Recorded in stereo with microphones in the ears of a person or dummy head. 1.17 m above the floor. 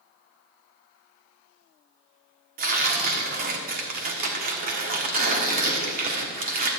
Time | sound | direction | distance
2.6 | tearing paper | 50° right (ahead or behind) | 1.4 m